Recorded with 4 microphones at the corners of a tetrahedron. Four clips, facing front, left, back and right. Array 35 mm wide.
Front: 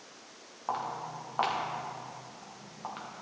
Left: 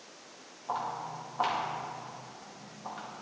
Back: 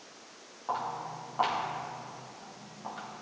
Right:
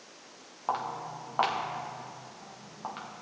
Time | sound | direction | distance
0.7 | footsteps | 75° right | 3.5 m